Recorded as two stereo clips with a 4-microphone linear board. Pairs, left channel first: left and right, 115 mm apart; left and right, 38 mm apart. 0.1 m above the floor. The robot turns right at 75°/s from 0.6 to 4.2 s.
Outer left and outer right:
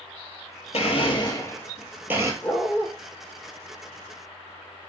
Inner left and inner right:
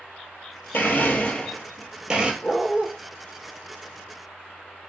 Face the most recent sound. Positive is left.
turn(degrees=-60)